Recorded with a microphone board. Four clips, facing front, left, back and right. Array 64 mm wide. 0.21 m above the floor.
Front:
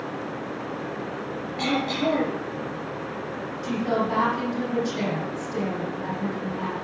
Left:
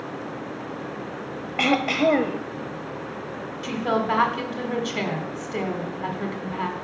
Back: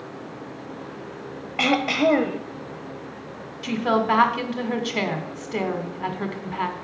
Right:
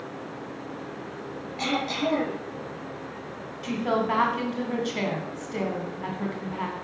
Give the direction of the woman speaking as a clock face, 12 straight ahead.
6 o'clock.